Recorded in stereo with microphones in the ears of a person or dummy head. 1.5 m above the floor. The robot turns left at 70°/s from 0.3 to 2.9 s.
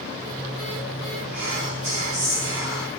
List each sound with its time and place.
1.3 s whispering: 5° right, 3.5 m; by 2.9 s 115° right, 3.5 m